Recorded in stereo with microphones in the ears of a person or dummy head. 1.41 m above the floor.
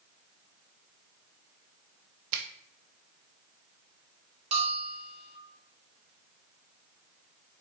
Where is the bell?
30° right (ahead or behind), 1.3 m.